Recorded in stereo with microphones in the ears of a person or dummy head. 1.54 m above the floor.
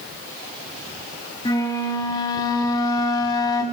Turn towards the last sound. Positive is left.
turn(degrees=25)  # may be behind; listen again after turning